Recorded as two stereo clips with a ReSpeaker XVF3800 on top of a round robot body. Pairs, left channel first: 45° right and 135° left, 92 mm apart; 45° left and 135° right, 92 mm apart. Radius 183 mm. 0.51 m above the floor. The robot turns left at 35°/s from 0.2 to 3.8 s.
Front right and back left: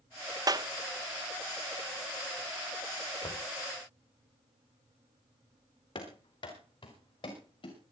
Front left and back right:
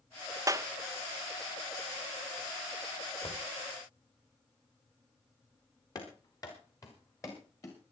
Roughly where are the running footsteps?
Ahead.